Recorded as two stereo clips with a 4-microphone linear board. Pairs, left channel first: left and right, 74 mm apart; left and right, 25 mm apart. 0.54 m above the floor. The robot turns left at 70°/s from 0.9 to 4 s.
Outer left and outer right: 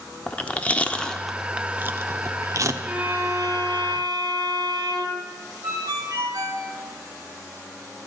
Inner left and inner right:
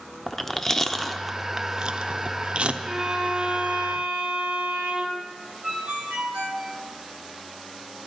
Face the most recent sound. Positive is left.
turn(degrees=-60)  # may be behind; listen again after turning